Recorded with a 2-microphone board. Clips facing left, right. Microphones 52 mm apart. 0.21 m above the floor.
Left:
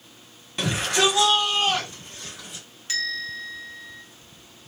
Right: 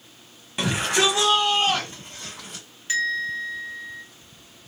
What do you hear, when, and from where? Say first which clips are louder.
0.6 s a shout: even; 10° right (ahead or behind), 1.0 m; by 2.6 s 45° right (ahead or behind), 1.6 m
2.9 s a bell: right 5 dB; 20° right (ahead or behind), 1.4 m